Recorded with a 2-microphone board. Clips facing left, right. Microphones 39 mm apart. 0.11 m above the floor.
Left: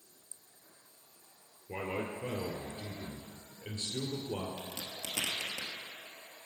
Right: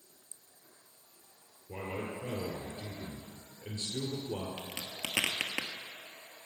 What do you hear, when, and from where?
1.7 s a man speaking: 30° left (ahead or behind), 2 m
4.6 s a crack: 55° right (ahead or behind), 1.4 m